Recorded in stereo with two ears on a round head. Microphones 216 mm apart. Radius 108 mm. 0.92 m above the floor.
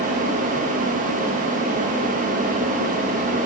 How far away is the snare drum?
I don't hear a snare drum.